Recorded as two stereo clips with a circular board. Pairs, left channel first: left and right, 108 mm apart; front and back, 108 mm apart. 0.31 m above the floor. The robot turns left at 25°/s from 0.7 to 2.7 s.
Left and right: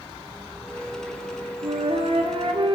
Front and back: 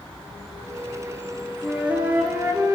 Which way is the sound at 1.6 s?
95° right.